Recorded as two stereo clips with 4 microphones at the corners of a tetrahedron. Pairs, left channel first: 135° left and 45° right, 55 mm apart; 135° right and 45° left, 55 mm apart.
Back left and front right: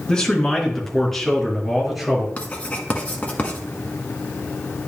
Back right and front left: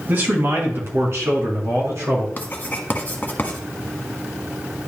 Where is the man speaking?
70° left, 1.8 m; by 2.3 s 45° left, 3 m.